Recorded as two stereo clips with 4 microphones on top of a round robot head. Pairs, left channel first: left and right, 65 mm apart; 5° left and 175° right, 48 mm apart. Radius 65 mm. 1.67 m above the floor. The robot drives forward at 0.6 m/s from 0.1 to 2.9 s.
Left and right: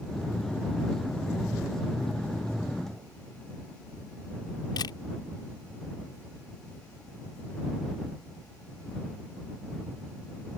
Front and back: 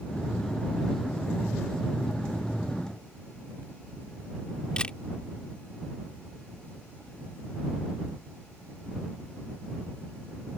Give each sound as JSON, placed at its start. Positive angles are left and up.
{"t": 4.8, "sound": "a camera shutter", "azimuth_deg": 75}